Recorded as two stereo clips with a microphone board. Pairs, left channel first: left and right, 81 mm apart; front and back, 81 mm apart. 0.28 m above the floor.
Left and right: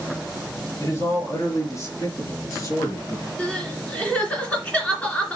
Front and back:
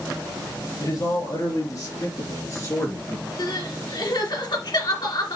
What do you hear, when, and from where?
0.8 s a man speaking: 35° left, 5 m; by 3.3 s 50° left, 3 m
3.4 s crying: 15° left, 2.5 m